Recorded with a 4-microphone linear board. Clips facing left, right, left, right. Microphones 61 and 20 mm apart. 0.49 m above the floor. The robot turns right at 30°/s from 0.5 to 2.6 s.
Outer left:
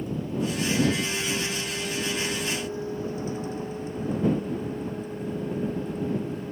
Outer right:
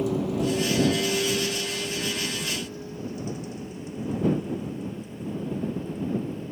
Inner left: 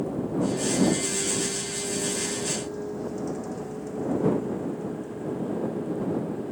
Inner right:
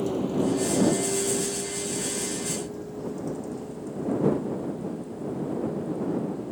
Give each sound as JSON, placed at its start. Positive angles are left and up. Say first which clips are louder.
{"t": 0.0, "sound": "a vehicle", "louder": "outer right 4 dB, inner right 2 dB", "side_deg": -85}